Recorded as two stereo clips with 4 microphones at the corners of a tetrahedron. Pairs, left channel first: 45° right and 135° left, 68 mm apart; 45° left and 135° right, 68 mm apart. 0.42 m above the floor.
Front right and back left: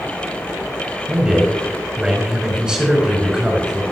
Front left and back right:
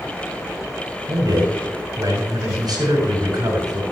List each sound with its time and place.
1.1 s a man speaking: 145° right, 6 m